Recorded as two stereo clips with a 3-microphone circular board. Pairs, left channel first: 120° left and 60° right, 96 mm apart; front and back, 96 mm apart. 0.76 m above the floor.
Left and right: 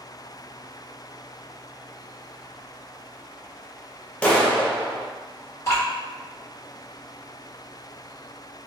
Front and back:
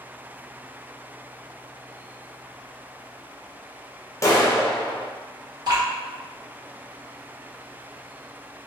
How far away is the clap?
About 0.5 m.